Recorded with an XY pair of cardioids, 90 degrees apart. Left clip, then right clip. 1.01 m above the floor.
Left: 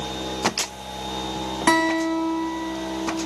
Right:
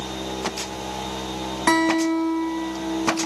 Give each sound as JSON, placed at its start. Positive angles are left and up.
{"t": 1.7, "sound": "a guitar", "azimuth_deg": 20, "distance_m": 1.5}